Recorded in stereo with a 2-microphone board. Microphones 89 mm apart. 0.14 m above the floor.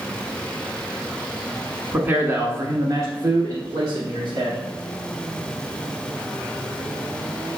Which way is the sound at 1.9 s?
20° right (ahead or behind).